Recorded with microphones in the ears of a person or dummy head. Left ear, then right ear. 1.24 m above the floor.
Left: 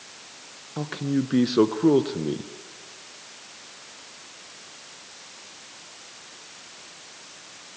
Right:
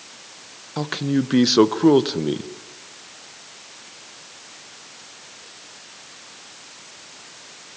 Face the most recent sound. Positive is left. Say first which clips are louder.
# right 4 dB
turn(degrees=-20)  # may be behind; listen again after turning